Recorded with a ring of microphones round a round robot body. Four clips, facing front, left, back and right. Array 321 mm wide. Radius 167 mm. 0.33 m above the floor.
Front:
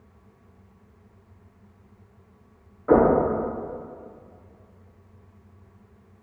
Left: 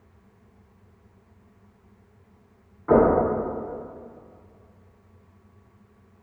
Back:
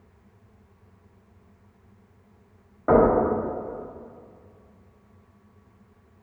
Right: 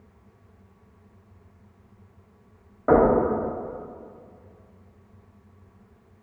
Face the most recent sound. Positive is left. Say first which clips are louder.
# even, even
turn(degrees=-125)